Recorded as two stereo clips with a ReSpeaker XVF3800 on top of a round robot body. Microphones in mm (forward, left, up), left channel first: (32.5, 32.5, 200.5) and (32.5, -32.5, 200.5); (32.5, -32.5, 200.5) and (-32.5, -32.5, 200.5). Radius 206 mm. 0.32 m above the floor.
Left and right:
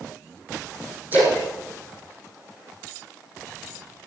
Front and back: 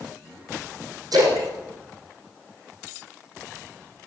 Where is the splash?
155° right, 4.5 m.